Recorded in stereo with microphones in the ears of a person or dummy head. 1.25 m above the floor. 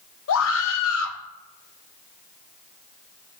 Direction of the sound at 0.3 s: 70° left (ahead or behind).